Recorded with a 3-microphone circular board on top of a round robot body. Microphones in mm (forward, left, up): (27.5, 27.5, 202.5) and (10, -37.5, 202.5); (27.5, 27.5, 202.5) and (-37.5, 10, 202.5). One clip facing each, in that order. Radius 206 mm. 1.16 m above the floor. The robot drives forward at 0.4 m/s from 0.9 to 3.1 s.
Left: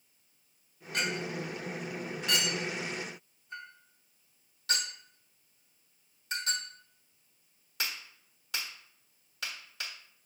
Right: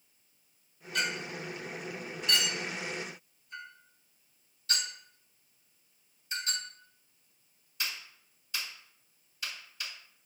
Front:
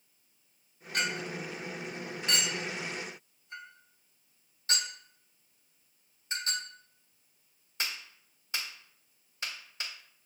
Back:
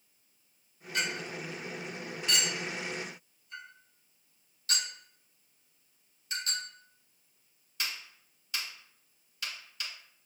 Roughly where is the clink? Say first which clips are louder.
Left 1 dB, front 1 dB; ahead left.